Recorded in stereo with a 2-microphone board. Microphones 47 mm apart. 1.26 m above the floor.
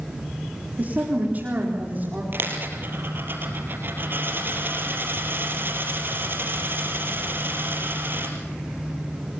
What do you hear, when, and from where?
0.8 s a woman speaking: 35° right (ahead or behind), 3.5 m; by 2.2 s 40° right (ahead or behind), 4.5 m
2.3 s a dropped coin: 50° right (ahead or behind), 4 m